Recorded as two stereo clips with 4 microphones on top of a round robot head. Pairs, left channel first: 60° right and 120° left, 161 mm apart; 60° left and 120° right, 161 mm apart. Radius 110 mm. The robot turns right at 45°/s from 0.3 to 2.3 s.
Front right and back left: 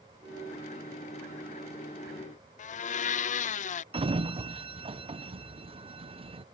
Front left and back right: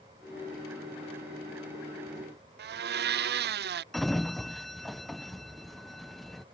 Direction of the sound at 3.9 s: 145° left.